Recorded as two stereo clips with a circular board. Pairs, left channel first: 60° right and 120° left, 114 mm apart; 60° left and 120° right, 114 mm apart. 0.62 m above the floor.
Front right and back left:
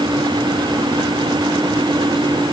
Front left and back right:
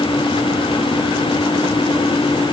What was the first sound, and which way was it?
Only background noise.